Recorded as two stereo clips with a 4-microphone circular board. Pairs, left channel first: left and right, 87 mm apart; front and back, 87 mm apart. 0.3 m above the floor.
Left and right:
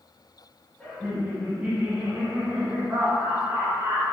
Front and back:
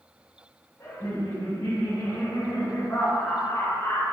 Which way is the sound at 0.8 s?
15° left.